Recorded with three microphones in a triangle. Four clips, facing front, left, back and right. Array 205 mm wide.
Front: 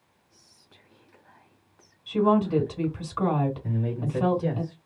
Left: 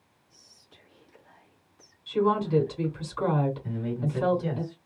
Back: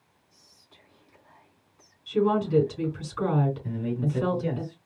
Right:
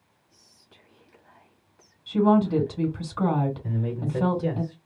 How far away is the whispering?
About 2.5 m.